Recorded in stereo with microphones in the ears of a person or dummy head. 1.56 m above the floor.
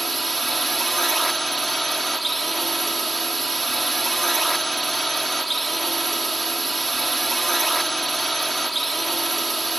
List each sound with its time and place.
0.0 s a drone: 5° left (ahead or behind)